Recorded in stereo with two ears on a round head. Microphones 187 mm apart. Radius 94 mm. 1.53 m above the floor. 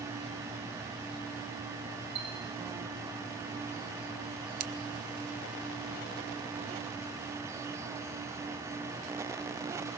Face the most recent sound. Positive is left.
turn(degrees=-45)  # may be behind; listen again after turning